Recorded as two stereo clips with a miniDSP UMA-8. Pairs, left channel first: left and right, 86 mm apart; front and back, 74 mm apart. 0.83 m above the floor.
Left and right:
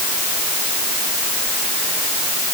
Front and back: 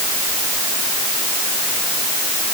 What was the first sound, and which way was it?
Only background noise.